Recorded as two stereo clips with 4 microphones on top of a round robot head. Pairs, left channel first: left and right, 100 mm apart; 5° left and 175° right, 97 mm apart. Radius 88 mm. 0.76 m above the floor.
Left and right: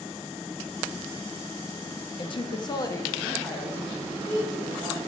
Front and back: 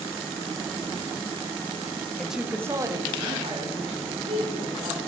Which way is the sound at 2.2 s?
95° left.